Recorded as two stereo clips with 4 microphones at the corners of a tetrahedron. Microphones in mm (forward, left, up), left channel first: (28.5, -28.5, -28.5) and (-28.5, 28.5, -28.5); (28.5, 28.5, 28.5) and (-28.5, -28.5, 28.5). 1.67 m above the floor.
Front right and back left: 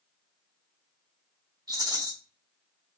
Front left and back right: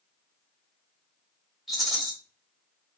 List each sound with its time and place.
1.7 s a rattle: 135° left, 2 m